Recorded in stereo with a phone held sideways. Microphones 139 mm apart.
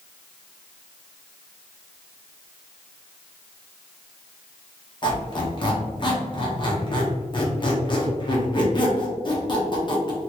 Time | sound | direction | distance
5.0 | a squeak | 35° left (ahead or behind) | 0.8 m